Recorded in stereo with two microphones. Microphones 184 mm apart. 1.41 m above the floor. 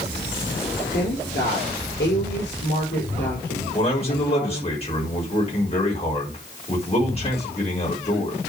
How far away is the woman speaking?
About 4.5 m.